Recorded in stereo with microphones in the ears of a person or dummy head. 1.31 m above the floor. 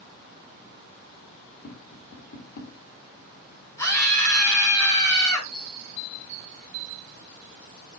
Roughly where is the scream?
Centre.